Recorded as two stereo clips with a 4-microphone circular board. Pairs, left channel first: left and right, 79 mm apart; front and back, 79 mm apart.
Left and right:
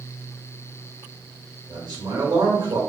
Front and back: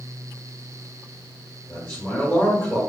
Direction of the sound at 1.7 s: 75° right.